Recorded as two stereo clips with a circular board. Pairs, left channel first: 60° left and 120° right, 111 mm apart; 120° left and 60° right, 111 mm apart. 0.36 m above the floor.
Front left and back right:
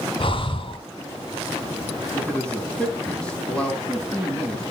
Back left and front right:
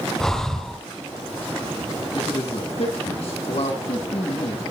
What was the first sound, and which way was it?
Breathing, 35° left.